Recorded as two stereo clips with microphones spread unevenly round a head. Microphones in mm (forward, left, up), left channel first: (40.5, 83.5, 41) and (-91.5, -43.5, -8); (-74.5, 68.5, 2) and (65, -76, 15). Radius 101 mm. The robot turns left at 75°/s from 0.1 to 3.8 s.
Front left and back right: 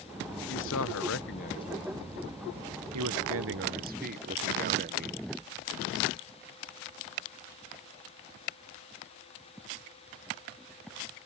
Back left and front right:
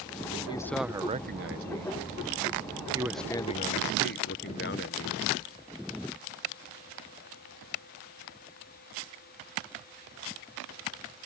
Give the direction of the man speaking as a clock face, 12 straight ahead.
10 o'clock.